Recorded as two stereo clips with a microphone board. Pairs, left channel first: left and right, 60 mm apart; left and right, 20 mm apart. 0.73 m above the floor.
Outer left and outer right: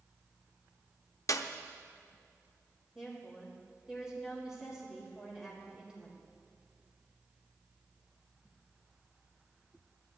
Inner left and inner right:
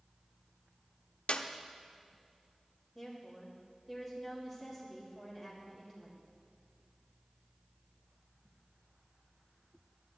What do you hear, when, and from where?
1.3 s a clap: 65° left (ahead or behind), 0.6 m
3.0 s a woman speaking: 5° right (ahead or behind), 3.5 m